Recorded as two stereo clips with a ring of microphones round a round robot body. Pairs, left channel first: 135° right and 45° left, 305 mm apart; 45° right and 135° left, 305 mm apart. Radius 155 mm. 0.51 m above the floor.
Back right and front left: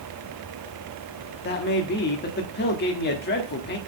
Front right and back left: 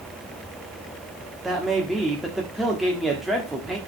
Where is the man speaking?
135° right, 1.1 m.